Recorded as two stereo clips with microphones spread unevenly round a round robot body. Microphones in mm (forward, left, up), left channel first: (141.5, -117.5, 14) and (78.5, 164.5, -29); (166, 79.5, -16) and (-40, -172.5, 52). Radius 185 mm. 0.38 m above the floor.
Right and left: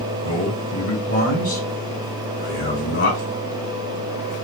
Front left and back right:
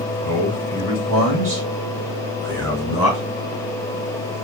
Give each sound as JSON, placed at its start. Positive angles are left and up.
{"t": 0.2, "sound": "a man speaking", "azimuth_deg": -150, "distance_m": 1.6}